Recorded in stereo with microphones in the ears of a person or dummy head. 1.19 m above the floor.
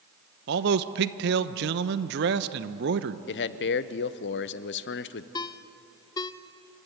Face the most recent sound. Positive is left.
turn(degrees=20)  # may be behind; listen again after turning